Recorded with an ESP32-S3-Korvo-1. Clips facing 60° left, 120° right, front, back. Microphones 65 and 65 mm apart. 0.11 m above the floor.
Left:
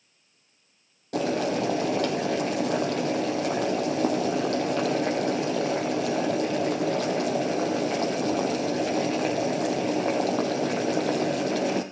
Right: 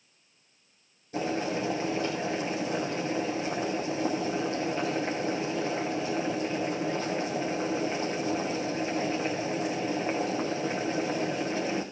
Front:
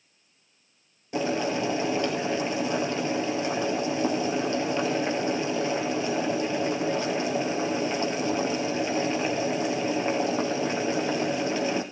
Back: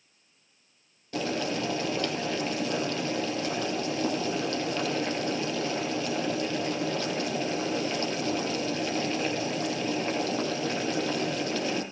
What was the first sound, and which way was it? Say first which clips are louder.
Boiling: left 4 dB, front 3 dB; 70° left.